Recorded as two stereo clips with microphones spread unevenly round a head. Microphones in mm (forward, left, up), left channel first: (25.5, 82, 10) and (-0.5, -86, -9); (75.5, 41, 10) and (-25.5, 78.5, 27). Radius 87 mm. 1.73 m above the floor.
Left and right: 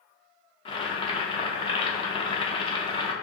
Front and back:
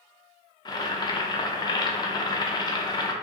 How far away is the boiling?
About 0.6 m.